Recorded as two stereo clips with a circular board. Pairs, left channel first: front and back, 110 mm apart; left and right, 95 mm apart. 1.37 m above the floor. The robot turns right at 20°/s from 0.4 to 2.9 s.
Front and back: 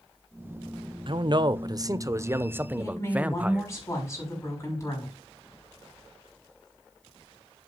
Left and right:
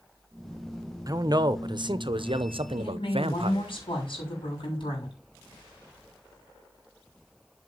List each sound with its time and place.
1.1 s a man speaking: 140° right, 0.7 m; by 3.7 s 105° right, 0.7 m
2.8 s a woman speaking: 60° left, 6 m; by 5.2 s 65° left, 6 m